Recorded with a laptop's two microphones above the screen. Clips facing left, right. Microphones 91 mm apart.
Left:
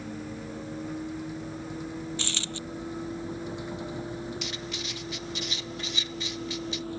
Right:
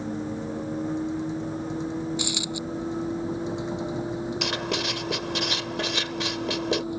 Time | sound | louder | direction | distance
0.0 | a vehicle | right 7 dB | 25° right (ahead or behind) | ?
2.2 | a dropped coin | right 6 dB | 10° right (ahead or behind) | ?
4.4 | writing | right 9 dB | 80° right | ?